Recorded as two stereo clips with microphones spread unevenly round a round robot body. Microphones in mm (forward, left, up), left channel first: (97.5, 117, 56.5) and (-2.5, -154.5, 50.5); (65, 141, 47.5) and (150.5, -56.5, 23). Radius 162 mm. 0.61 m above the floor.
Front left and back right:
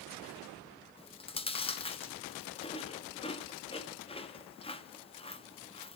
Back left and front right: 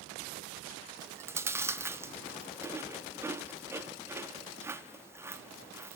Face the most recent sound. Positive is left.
turn(degrees=5)